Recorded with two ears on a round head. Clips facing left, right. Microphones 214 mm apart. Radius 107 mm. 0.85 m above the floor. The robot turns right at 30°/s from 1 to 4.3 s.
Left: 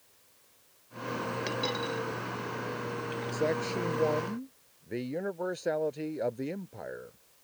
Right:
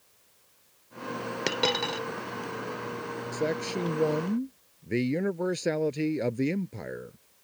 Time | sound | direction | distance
1.5 | a dropped coin | 70° right (ahead or behind) | ?
3.3 | a man speaking | 10° right (ahead or behind) | ?